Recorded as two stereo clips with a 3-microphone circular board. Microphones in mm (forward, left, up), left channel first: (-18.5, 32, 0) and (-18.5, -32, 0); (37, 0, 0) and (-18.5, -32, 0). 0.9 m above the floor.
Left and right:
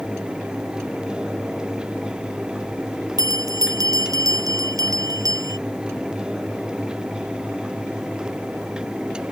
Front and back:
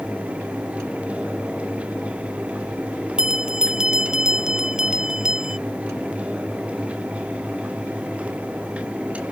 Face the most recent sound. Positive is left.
turn(degrees=-70)